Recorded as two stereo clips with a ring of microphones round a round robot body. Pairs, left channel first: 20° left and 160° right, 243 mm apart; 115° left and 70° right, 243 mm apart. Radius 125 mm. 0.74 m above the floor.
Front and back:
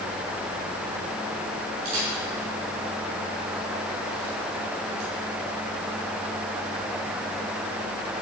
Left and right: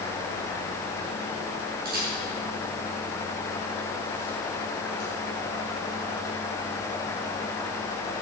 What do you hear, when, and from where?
1.9 s a camera shutter: 120° right, 6.5 m